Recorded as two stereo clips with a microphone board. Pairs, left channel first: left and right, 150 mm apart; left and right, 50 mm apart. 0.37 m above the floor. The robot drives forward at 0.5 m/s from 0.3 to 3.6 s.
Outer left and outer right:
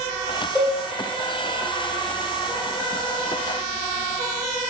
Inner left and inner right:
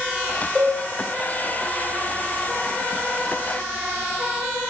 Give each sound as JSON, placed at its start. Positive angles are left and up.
{"t": 0.6, "sound": "a cowbell", "side_deg": 10, "distance_m": 2.5}